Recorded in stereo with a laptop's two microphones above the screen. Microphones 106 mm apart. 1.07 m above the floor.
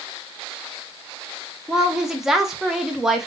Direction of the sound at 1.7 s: 5° right (ahead or behind).